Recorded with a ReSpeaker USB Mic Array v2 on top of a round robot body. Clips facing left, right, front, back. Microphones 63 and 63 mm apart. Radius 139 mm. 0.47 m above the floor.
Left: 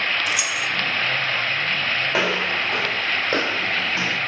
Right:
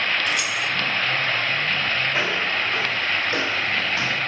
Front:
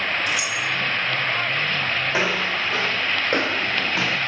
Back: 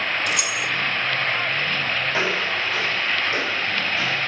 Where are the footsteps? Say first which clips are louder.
Left 1 dB, front 1 dB; 80° left, 2 m; by 4.2 s 15° left, 1.8 m.